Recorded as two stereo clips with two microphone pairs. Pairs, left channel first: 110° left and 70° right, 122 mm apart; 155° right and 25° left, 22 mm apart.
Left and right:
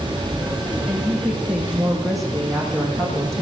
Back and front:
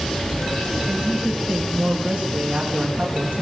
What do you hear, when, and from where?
0.9 s a woman speaking: 10° left, 6 m; by 3.4 s 25° left, 6.5 m